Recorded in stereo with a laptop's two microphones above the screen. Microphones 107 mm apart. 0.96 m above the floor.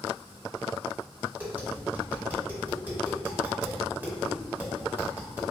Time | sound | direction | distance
1.4 | tapping | 20° right (ahead or behind) | 1.6 m